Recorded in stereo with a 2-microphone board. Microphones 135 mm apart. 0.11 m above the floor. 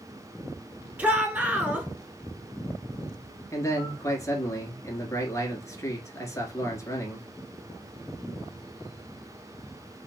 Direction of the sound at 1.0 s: 15° right (ahead or behind).